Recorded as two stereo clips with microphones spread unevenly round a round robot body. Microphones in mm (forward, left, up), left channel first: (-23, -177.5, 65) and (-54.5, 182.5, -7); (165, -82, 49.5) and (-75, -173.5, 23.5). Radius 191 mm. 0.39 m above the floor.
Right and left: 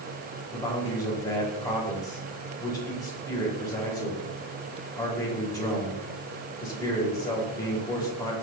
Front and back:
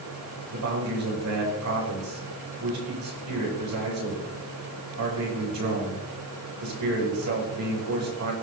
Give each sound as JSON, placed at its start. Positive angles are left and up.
{"t": 0.5, "sound": "a man speaking", "azimuth_deg": -170, "distance_m": 10.0}